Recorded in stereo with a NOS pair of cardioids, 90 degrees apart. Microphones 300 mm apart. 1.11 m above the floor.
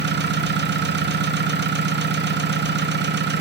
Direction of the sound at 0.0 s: 35° right.